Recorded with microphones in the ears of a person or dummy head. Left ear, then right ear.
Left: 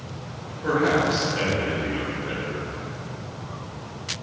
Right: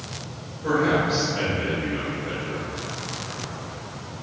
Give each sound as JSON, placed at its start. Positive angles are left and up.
{"t": 0.6, "sound": "a man speaking", "side_deg": 30, "distance_m": 1.0}